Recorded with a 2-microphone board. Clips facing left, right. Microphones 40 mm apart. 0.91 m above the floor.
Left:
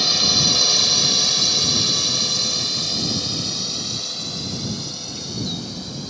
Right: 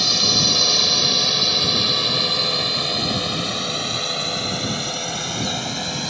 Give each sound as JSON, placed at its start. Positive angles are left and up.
{"t": 0.0, "sound": "a drone", "side_deg": 0}